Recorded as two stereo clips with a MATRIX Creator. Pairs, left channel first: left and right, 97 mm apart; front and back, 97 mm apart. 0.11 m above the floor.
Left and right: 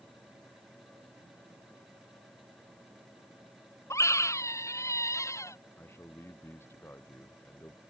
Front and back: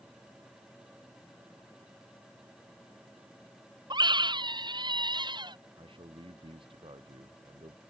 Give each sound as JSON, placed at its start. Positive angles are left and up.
{"t": 3.9, "sound": "a scream", "azimuth_deg": 145}
{"t": 5.8, "sound": "a man speaking", "azimuth_deg": 155}